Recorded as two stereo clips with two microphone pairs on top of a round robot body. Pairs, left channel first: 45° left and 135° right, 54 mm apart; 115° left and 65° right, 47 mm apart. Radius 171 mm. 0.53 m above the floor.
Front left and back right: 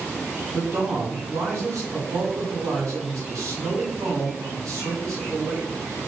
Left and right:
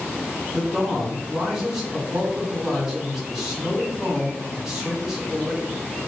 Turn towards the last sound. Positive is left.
turn(degrees=-145)